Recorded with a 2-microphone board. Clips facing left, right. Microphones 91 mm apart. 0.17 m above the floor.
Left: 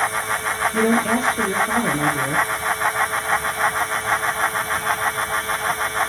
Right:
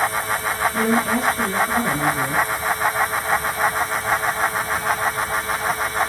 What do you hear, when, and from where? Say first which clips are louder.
0.7 s a woman speaking: left 3 dB; 75° left (ahead or behind), 4 m